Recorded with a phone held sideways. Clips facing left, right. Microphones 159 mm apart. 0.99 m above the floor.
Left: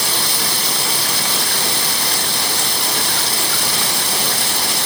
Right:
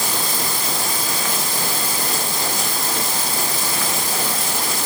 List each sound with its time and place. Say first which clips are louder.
0.0 s running water: left 1 dB; 75° left (ahead or behind)